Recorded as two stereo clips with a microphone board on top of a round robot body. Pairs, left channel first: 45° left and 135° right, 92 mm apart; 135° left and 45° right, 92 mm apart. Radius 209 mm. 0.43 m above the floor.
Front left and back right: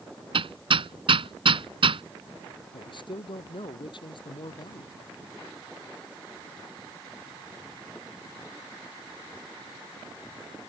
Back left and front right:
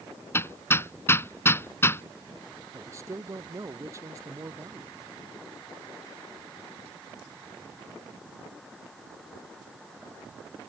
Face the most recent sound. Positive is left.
turn(degrees=15)